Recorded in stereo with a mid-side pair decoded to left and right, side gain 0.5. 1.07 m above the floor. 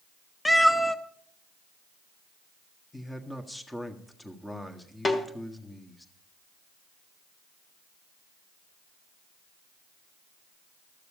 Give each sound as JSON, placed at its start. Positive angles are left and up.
{"t": 0.5, "sound": "a cat meowing", "azimuth_deg": 10, "distance_m": 0.8}
{"t": 2.9, "sound": "a man speaking", "azimuth_deg": 10, "distance_m": 1.5}
{"t": 5.0, "sound": "a snare drum", "azimuth_deg": 30, "distance_m": 1.5}